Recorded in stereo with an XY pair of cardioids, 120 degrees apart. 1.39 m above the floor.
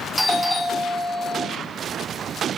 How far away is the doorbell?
About 2.5 m.